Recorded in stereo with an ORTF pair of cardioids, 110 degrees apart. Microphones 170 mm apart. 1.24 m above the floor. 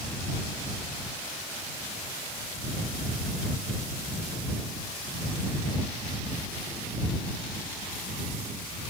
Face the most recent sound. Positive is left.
No sound to turn to.